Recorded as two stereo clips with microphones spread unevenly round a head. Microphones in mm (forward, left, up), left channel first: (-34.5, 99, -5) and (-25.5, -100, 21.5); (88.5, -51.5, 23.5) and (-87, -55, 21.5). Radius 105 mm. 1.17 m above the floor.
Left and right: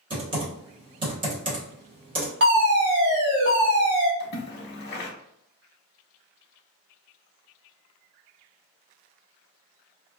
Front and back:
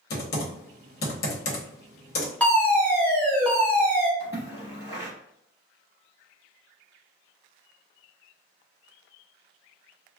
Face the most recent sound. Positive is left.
turn(degrees=110)